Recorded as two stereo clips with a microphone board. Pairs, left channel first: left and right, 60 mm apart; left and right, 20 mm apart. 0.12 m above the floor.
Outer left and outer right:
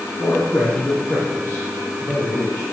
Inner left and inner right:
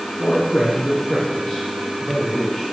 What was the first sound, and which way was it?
A man speaking, 50° left (ahead or behind).